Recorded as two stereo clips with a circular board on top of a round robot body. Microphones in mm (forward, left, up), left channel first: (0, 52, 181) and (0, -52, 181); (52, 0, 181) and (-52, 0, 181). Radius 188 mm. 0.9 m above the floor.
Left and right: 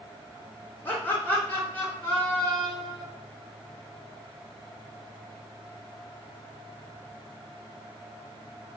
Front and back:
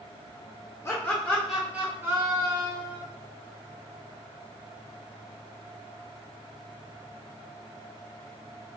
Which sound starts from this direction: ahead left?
Laughter, at 0.8 s.